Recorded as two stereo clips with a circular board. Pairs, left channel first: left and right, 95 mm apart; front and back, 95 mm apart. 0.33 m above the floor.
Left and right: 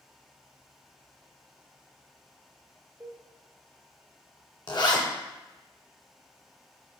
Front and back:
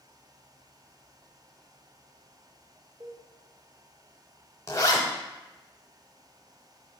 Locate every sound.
3.0 s a cowbell: 150° right, 0.5 m
4.7 s a zipper: 55° left, 0.6 m